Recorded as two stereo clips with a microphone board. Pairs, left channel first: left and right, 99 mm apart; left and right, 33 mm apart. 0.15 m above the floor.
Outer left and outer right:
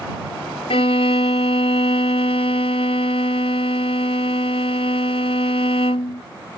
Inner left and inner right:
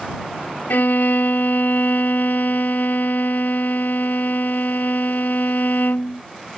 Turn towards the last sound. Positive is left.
turn(degrees=75)  # may be behind; listen again after turning